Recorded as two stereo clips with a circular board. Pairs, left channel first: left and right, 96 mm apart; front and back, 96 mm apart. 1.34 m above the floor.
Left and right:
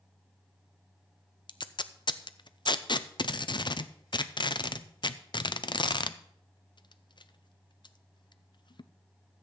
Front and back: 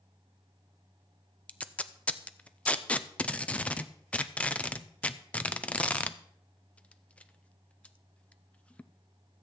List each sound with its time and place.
1.5 s tape being pulled: 75° left, 0.6 m